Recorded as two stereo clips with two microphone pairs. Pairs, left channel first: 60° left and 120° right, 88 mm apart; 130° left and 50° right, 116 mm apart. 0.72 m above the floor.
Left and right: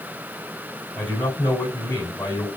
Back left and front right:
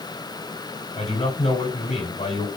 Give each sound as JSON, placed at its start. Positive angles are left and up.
{"t": 1.0, "sound": "a man speaking", "azimuth_deg": 125, "distance_m": 5.0}